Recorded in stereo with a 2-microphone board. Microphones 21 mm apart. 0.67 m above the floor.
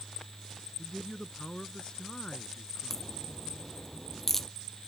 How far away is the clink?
No clink in this recording.